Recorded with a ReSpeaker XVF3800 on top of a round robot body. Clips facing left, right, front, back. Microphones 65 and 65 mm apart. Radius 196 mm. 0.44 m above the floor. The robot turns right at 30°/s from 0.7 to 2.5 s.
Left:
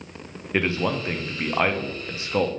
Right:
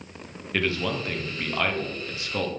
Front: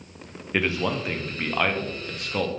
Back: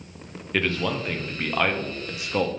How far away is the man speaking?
About 0.9 m.